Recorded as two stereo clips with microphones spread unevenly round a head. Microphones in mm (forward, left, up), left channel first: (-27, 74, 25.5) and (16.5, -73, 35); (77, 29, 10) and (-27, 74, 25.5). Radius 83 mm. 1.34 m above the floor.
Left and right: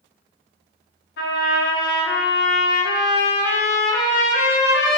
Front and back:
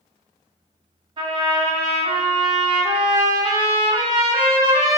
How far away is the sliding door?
I don't hear a sliding door.